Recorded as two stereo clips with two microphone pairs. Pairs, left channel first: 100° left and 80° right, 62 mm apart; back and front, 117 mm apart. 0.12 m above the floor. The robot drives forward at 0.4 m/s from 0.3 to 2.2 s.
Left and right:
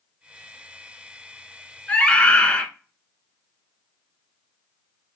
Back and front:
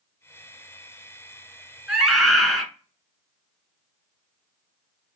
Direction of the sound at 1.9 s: 75° left.